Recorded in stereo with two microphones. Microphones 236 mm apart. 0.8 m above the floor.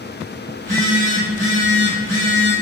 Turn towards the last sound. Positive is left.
turn(degrees=-30)  # may be behind; listen again after turning